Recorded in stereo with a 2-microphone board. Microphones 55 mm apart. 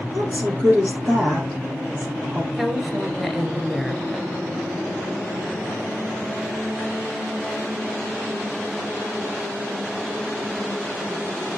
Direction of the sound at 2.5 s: 5° right (ahead or behind).